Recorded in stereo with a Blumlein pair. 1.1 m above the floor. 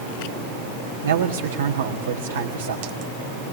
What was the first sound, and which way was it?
A man speaking, 60° right.